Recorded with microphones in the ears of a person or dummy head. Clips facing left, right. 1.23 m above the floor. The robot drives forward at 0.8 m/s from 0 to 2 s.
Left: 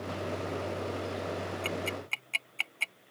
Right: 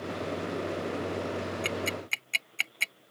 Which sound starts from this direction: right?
Ticking, at 1.6 s.